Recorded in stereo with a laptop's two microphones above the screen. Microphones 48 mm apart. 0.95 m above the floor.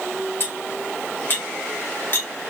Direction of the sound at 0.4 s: 45° left (ahead or behind).